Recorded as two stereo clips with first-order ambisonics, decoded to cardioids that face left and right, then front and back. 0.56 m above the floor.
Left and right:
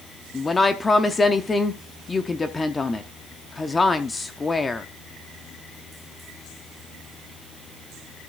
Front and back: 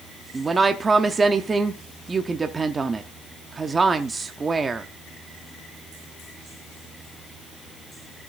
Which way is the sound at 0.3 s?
140° left.